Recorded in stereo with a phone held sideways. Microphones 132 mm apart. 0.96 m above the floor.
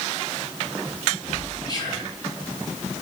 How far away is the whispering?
About 1.1 m.